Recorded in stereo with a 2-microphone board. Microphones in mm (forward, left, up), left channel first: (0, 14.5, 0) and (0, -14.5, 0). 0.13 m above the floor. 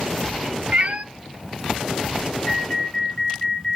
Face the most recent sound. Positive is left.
turn(degrees=30)  # may be behind; listen again after turning